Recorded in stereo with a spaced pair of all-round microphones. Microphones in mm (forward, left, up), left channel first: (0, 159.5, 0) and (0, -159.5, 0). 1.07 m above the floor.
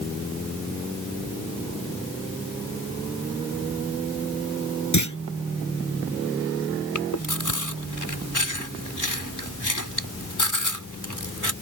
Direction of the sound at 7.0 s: 70° left (ahead or behind).